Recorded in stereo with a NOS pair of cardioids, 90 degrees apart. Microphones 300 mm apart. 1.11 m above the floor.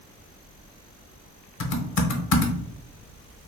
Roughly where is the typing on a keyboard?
Ahead left.